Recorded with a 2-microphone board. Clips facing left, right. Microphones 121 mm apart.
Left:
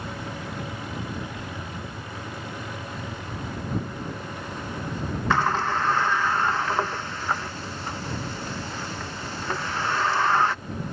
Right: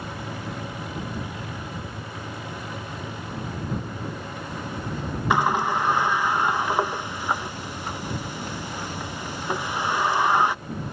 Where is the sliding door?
15° right (ahead or behind).